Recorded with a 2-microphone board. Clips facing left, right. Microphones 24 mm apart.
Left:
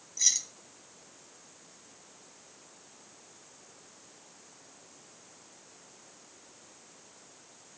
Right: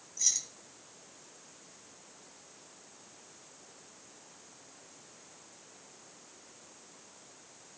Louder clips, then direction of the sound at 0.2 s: Left 4 dB; 40° left (ahead or behind).